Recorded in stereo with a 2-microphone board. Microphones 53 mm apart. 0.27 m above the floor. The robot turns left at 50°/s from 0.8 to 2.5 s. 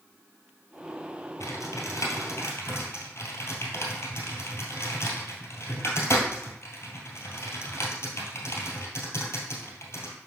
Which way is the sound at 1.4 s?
70° left (ahead or behind).